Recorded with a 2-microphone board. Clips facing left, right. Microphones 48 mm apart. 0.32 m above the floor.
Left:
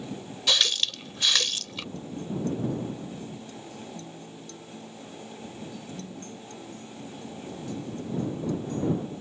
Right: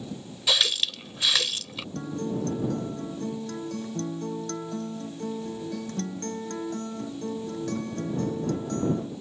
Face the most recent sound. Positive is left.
turn(degrees=-60)  # may be behind; listen again after turning